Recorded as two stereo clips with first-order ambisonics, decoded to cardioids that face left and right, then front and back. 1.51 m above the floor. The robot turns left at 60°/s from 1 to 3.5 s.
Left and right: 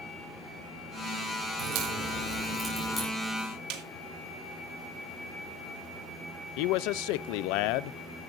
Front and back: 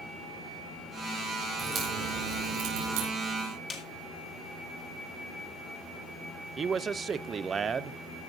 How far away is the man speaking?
About 0.5 m.